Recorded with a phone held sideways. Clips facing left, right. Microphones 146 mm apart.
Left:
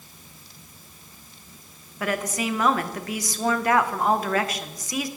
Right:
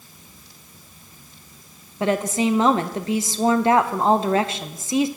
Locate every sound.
2.0 s a woman speaking: 25° right (ahead or behind), 0.6 m